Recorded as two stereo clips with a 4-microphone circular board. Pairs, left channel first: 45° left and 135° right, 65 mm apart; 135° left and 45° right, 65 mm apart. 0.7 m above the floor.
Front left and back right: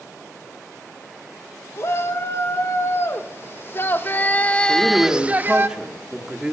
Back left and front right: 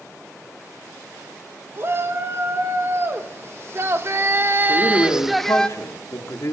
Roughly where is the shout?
Ahead.